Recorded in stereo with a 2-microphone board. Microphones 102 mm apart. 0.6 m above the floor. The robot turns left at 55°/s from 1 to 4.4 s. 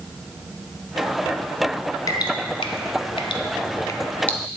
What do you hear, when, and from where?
2.1 s dripping: 35° left (ahead or behind), 1.0 m; by 4.4 s 10° left (ahead or behind), 1.0 m